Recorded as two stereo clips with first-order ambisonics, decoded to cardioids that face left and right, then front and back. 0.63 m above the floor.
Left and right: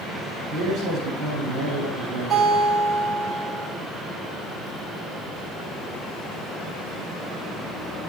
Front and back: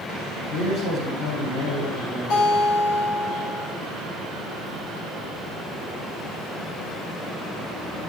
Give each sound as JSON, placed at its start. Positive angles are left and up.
{"t": 0.5, "sound": "a man speaking", "azimuth_deg": -25, "distance_m": 6.5}
{"t": 2.3, "sound": "a guitar", "azimuth_deg": -20, "distance_m": 6.5}